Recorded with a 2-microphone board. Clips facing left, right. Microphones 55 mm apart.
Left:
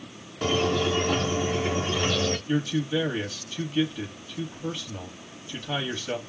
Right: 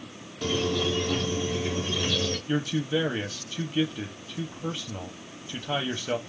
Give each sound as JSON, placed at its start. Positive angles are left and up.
{"t": 0.4, "sound": "a squeak", "side_deg": 45, "distance_m": 0.6}
{"t": 2.5, "sound": "a man speaking", "side_deg": -15, "distance_m": 0.9}